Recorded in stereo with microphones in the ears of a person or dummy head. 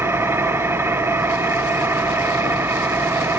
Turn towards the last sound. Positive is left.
turn(degrees=-10)  # may be behind; listen again after turning